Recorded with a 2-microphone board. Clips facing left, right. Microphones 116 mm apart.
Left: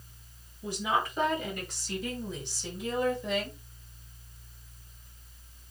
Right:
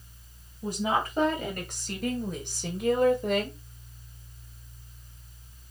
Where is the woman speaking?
45° right (ahead or behind), 3.5 m; by 3.6 s 50° right (ahead or behind), 2 m.